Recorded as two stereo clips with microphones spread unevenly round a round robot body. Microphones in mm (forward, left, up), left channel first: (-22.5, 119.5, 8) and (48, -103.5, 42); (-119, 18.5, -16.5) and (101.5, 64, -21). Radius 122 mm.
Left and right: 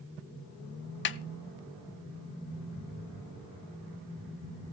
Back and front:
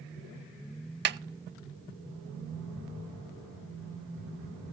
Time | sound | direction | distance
1.1 | a snare drum | 60° left | 0.6 m